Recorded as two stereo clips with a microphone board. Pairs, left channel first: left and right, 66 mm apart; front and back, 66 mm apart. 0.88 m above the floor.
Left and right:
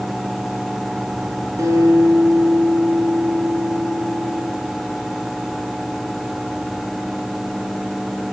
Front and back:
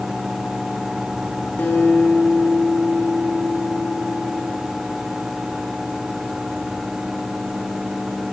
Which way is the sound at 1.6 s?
60° right.